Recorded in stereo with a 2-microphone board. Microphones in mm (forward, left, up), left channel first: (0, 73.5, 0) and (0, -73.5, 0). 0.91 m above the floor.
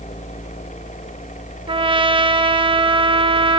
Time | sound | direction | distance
1.7 | a trumpet | 35° right (ahead or behind) | 0.6 m